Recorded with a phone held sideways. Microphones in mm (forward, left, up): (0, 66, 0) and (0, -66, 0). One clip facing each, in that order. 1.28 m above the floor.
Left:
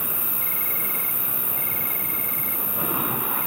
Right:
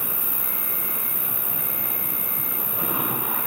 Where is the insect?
15° right (ahead or behind), 2 m.